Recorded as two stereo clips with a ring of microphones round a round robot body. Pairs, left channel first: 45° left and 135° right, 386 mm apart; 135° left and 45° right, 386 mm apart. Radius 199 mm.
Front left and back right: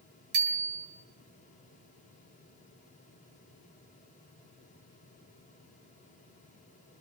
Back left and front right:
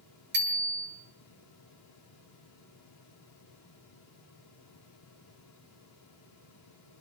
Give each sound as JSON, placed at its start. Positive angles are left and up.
{"t": 0.3, "sound": "a bicycle bell", "azimuth_deg": -110, "distance_m": 8.0}